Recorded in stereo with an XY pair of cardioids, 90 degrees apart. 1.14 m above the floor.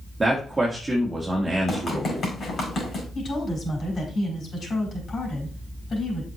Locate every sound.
0.2 s a man speaking: 20° right, 1.8 m
1.7 s running footsteps: 55° left, 5 m
3.1 s a woman speaking: 50° left, 5 m